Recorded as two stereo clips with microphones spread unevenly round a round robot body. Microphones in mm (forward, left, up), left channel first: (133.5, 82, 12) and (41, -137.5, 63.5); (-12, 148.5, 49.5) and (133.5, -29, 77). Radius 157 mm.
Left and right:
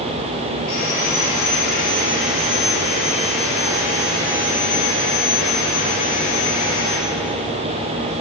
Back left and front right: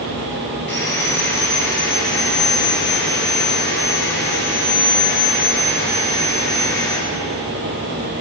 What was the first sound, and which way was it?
Sawing, 85° left.